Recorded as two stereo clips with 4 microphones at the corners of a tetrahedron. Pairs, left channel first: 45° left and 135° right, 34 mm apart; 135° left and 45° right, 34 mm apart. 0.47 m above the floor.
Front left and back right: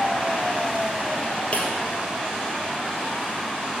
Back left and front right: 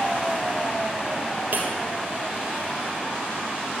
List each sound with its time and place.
1.5 s breaking glass: 5° right, 2.0 m